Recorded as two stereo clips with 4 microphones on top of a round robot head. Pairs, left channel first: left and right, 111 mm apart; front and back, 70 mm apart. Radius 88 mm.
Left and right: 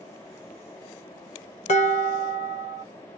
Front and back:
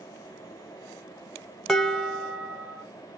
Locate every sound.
1.7 s dishes clattering: 85° left, 1.2 m